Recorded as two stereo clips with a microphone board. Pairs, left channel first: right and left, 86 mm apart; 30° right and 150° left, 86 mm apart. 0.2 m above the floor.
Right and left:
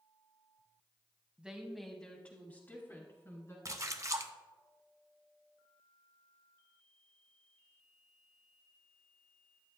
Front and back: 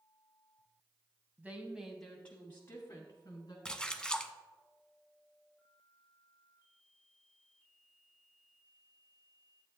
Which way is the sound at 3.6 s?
45° left.